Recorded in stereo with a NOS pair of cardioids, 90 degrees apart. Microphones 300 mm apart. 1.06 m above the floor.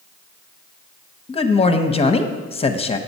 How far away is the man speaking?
About 0.8 m.